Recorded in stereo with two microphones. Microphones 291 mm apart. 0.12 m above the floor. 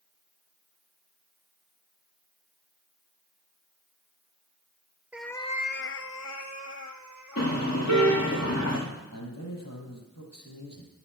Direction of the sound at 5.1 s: 5° right (ahead or behind).